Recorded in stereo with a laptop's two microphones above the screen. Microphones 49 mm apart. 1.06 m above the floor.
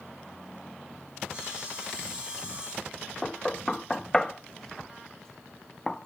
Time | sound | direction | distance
1.3 | sawing | 25° right (ahead or behind) | 5 m
3.2 | knocking | 10° left (ahead or behind) | 0.6 m